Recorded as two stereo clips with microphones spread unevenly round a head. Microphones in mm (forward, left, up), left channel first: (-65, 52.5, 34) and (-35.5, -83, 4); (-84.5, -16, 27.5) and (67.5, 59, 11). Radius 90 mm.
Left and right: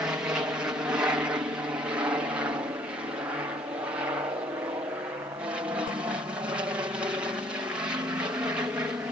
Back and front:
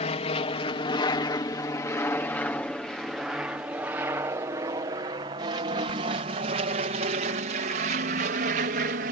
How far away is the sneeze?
No sneeze in this recording.